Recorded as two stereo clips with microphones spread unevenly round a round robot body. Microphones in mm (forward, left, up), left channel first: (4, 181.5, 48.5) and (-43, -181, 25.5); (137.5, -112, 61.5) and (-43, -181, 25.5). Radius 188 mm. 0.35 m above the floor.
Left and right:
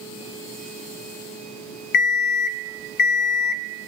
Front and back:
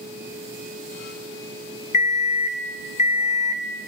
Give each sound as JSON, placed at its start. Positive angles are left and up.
{"t": 1.9, "sound": "an alarm clock", "azimuth_deg": 80, "distance_m": 0.6}